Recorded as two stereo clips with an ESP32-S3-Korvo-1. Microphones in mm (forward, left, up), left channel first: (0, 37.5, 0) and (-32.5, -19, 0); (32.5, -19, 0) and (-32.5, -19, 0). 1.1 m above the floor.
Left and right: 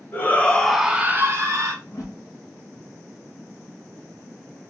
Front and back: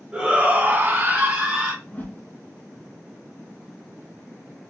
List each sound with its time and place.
0.1 s a shout: 110° left, 1.0 m; by 1.7 s 125° right, 1.1 m
1.8 s a whoosh: 55° left, 1.7 m